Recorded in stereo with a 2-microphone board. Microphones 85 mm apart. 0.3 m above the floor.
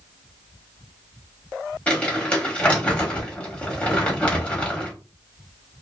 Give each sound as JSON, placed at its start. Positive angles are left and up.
{"t": 1.9, "sound": "crumpling", "side_deg": 15, "distance_m": 1.1}